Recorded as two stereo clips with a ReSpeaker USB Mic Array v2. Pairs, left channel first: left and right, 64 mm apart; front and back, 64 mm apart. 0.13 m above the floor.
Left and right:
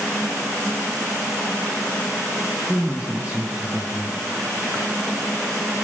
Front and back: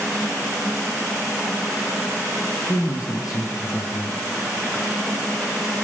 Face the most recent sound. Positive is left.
turn(degrees=-20)